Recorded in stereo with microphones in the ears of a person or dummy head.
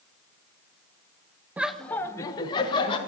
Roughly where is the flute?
I don't hear a flute.